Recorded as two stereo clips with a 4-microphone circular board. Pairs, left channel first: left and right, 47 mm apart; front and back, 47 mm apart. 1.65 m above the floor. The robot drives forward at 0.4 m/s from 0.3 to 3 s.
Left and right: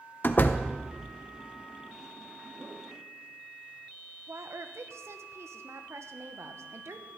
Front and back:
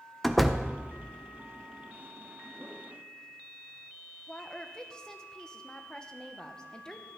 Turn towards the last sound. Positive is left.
turn(degrees=-70)